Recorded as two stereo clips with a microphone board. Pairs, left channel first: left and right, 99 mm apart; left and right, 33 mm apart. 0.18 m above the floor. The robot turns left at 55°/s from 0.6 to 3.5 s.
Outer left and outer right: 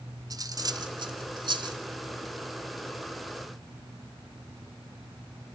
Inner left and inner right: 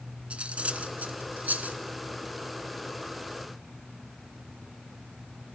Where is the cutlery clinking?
40° right (ahead or behind), 1.2 m; by 1.8 s 45° right (ahead or behind), 1.2 m.